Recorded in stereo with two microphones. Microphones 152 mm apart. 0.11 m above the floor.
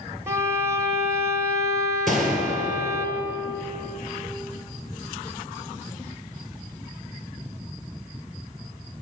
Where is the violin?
20° right (ahead or behind), 0.7 m.